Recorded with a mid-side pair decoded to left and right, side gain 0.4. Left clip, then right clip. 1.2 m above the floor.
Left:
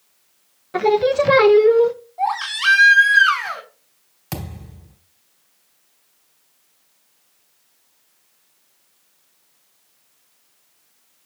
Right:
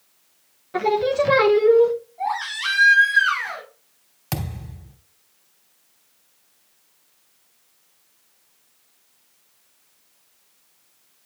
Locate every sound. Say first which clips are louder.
0.7 s singing: left 3 dB; 30° left, 1.1 m
2.2 s a baby crying: left 7 dB; 70° left, 4 m
4.3 s a thud: right 1 dB; 20° right, 2.5 m